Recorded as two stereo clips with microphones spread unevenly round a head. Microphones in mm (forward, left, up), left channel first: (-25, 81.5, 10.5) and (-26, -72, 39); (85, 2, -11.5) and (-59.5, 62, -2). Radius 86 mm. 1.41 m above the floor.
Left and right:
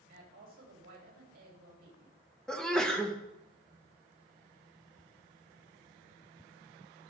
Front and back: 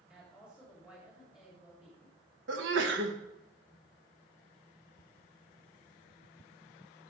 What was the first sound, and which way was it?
A woman speaking, 115° right.